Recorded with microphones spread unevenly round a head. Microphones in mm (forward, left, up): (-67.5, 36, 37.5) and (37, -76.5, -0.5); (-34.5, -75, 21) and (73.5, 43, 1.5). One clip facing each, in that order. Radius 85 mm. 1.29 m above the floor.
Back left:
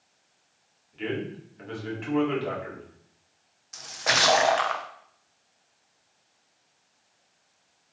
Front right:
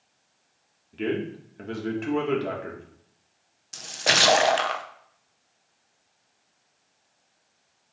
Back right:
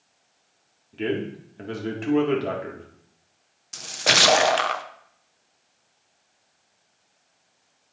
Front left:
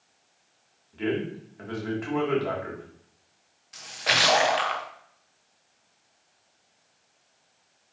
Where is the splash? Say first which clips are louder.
Front right 2 dB, back right 5 dB; 95° right, 0.7 m.